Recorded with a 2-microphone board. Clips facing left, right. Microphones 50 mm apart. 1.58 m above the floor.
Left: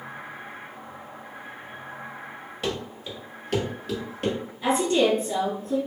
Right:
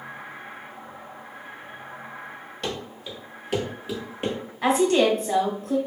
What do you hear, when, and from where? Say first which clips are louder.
2.6 s running footsteps: left 2 dB; 5° left (ahead or behind), 1.8 m; by 4.4 s 25° right (ahead or behind), 1.7 m
4.6 s a woman speaking: right 2 dB; 75° right (ahead or behind), 1.8 m